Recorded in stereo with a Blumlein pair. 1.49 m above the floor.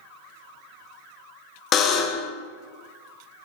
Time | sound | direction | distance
1.7 | a buzzer | 30° left | 0.7 m